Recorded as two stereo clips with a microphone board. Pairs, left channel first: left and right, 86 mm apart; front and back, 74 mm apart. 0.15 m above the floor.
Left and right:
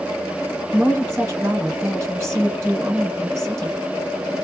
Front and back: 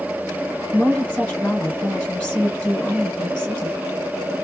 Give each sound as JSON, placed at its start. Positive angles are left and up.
{"t": 0.7, "sound": "a woman speaking", "azimuth_deg": -60, "distance_m": 1.5}